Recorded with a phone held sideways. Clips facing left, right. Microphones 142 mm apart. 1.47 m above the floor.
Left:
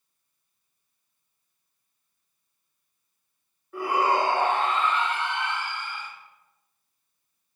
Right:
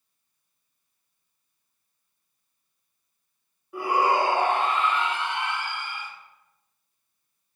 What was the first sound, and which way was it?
A shout, 10° right (ahead or behind).